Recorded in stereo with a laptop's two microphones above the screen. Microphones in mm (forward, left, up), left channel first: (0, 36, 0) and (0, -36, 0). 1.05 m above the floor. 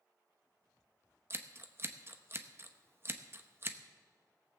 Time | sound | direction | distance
1.3 | scissors | 35° right (ahead or behind) | 0.6 m